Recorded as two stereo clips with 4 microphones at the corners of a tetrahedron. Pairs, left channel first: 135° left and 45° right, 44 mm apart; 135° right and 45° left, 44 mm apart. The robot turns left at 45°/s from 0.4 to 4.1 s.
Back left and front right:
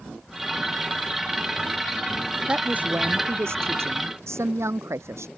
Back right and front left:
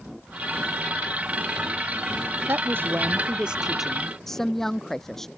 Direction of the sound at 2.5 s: 20° left.